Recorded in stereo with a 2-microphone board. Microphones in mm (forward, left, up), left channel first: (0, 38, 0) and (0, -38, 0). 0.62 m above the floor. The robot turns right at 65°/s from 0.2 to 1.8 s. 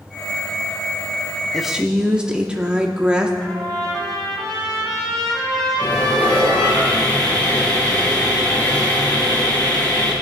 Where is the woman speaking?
Centre (ahead or behind), 0.8 m; by 3.3 s 10° right (ahead or behind), 0.8 m.